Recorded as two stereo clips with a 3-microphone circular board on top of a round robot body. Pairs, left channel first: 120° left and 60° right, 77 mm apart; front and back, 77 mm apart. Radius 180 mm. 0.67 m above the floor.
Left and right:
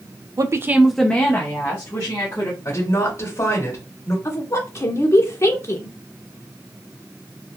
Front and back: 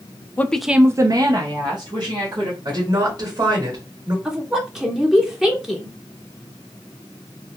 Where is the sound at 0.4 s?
60° right, 0.6 m; by 2.5 s 170° left, 1.5 m.